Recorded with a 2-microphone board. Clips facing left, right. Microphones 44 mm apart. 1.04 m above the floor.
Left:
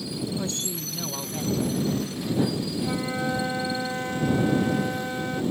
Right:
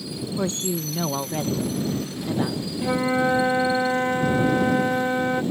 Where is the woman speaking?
30° right (ahead or behind).